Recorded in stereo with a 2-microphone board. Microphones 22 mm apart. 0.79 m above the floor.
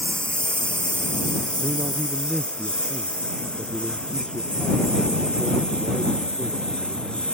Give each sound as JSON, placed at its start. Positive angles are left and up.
{"t": 0.0, "sound": "a lawn mower", "side_deg": 60}
{"t": 1.6, "sound": "a man speaking", "side_deg": -10}